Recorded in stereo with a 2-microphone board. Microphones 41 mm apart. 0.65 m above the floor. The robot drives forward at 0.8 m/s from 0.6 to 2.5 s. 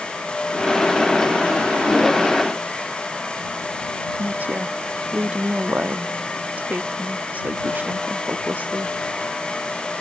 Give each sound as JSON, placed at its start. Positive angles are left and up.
{"t": 4.2, "sound": "a woman speaking", "side_deg": -45}